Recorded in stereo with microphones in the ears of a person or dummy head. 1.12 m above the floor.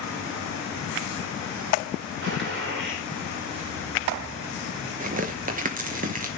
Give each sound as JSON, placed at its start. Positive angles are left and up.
{"t": 2.2, "sound": "a gunshot", "side_deg": -55, "distance_m": 2.5}
{"t": 5.0, "sound": "tearing paper", "side_deg": -40, "distance_m": 1.0}